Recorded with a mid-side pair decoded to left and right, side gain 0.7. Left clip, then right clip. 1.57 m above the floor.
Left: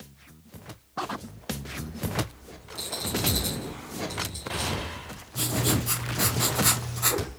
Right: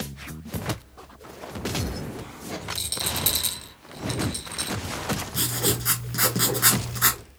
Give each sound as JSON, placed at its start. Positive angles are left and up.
{"t": 2.8, "sound": "a rattle", "azimuth_deg": -60, "distance_m": 1.2}
{"t": 5.3, "sound": "writing", "azimuth_deg": -70, "distance_m": 1.9}